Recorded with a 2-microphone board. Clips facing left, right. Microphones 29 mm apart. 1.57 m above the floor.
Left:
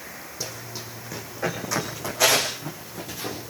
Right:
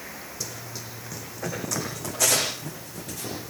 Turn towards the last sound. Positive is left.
turn(degrees=15)  # may be behind; listen again after turning